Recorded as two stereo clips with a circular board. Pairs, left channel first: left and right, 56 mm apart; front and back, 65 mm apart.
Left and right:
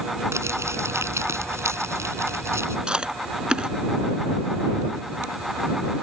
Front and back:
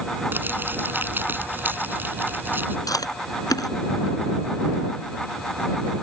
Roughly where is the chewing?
Ahead.